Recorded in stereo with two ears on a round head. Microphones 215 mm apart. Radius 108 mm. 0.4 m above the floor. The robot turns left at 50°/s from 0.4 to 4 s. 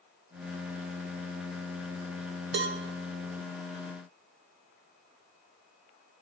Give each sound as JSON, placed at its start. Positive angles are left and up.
{"t": 2.5, "sound": "a cowbell", "side_deg": -50, "distance_m": 0.6}